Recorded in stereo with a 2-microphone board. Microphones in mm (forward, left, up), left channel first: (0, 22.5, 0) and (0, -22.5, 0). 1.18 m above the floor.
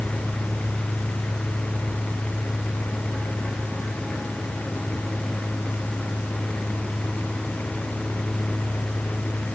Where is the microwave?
I don't hear a microwave.